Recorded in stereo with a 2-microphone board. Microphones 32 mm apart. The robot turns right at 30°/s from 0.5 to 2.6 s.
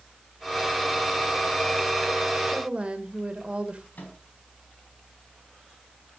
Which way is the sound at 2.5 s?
35° right (ahead or behind).